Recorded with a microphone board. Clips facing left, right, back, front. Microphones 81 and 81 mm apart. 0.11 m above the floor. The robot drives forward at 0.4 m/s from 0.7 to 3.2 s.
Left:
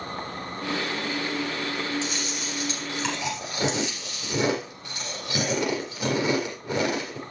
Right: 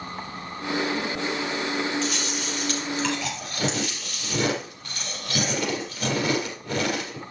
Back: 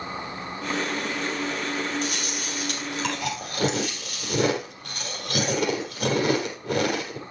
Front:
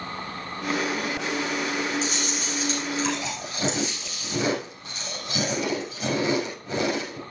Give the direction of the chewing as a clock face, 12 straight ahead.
7 o'clock.